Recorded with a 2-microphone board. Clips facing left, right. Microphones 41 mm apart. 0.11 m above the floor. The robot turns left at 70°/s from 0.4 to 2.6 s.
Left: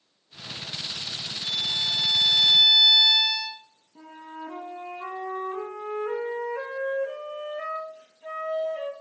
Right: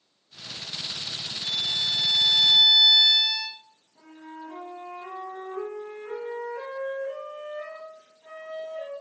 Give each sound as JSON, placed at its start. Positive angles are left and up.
{"t": 1.4, "sound": "a violin", "side_deg": 15, "distance_m": 1.2}
{"t": 4.0, "sound": "a flute", "side_deg": 55, "distance_m": 2.5}